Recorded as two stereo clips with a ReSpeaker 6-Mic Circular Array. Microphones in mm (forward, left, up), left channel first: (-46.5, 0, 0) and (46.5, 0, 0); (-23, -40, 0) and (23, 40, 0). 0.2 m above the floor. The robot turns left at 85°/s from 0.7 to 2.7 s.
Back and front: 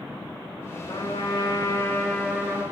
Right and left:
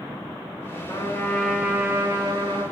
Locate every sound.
0.9 s a trumpet: 160° right, 5 m; by 2.6 s 50° left, 5 m